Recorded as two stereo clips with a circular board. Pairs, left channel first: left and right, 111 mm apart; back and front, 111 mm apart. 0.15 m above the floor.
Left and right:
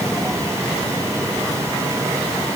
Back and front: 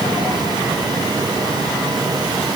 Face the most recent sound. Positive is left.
No sound to turn to.